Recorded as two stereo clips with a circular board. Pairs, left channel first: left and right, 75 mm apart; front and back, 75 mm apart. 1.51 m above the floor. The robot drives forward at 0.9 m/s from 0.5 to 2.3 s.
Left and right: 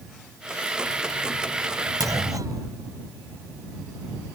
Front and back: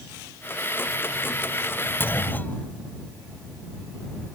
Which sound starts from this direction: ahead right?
A clunk, at 2.0 s.